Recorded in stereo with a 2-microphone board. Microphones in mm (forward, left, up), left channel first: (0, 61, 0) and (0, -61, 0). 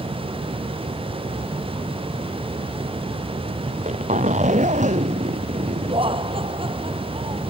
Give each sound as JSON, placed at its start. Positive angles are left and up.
{"t": 3.7, "sound": "a zipper", "side_deg": -80}
{"t": 5.9, "sound": "laughter", "side_deg": -45}